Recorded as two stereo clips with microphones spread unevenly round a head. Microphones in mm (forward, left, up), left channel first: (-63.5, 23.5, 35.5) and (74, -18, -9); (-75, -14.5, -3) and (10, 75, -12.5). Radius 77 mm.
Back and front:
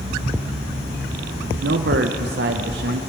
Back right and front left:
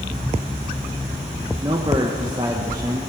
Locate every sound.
1.6 s a man speaking: 20° right, 0.7 m